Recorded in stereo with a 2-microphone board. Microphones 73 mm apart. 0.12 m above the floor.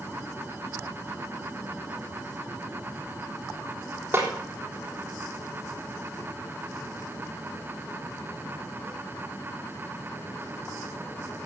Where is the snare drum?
30° right (ahead or behind), 3.5 m.